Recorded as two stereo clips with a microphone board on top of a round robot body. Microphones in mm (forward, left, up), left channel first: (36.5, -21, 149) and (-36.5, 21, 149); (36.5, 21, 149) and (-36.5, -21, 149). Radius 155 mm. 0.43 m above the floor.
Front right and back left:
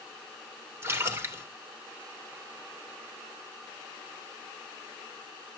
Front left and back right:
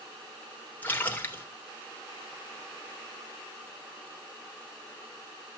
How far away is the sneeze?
I don't hear a sneeze.